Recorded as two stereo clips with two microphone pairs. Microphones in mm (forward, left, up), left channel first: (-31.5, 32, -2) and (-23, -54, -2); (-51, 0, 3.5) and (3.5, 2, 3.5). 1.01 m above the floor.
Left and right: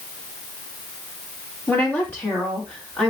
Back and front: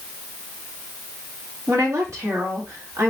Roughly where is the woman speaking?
Ahead left.